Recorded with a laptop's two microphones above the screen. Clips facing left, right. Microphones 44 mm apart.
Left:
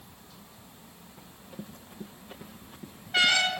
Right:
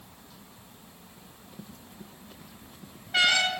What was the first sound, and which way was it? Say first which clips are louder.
Running footsteps: left 4 dB; 25° left (ahead or behind).